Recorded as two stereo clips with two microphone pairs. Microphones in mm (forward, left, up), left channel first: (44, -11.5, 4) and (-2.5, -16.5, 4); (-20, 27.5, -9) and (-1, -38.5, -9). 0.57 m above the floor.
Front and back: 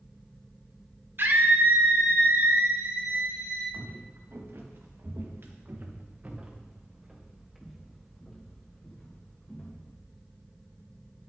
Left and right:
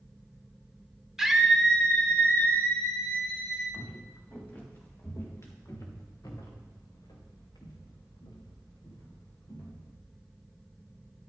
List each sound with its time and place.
1.2 s a scream: 160° right, 1.5 m; by 3.6 s 160° left, 4 m
3.7 s footsteps: straight behind, 3.5 m; by 9.9 s 70° left, 4 m